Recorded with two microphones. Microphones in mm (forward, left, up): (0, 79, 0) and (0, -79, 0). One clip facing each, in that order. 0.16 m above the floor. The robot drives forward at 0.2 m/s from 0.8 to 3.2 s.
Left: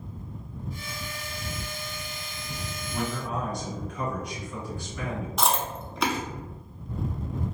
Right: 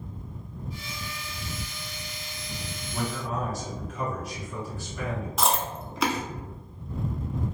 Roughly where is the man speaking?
Centre.